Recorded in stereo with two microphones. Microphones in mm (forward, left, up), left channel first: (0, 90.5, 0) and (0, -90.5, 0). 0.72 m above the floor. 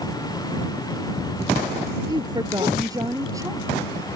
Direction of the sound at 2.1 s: 25° right (ahead or behind).